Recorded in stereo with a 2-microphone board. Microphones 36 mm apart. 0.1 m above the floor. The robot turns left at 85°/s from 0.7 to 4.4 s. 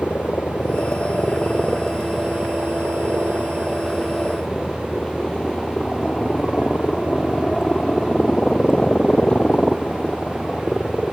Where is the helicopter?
105° left; by 11.1 s 150° left.